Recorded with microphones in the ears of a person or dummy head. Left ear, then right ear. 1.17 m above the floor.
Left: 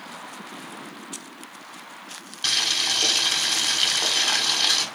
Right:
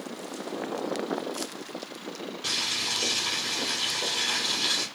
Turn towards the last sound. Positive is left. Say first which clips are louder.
# left 6 dB
turn(degrees=30)  # may be behind; listen again after turning